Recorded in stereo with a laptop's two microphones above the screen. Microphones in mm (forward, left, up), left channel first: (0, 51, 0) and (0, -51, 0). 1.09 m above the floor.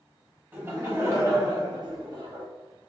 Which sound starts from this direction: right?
Laughter, at 0.5 s.